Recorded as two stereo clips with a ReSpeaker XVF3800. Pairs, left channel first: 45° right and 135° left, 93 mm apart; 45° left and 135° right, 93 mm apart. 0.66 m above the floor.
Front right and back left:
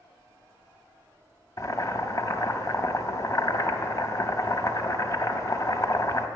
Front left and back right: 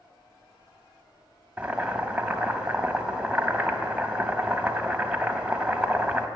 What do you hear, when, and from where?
1.6 s boiling: 65° right, 0.5 m